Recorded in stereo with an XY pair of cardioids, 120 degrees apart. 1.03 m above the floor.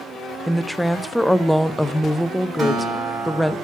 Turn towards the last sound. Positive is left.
turn(degrees=-45)